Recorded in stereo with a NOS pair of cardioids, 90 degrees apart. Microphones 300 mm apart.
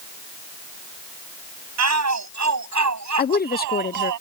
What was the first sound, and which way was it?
A shout, 60° right.